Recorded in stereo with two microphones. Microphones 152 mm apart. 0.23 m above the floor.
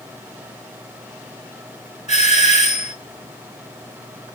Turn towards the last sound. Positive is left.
turn(degrees=50)  # may be behind; listen again after turning